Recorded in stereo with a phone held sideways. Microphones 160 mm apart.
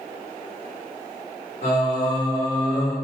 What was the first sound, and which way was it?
Singing, 50° left (ahead or behind).